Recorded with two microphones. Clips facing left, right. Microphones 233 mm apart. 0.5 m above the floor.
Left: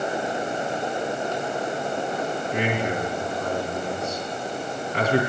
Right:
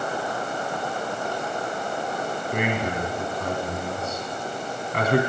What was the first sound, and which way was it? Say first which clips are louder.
A man speaking: even; 60° right (ahead or behind).